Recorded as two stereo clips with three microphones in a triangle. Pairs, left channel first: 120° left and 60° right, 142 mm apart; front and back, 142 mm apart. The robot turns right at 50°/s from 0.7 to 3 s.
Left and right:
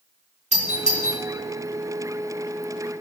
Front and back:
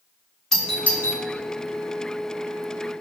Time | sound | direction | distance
0.5 | a doorbell | 85° right | 4 m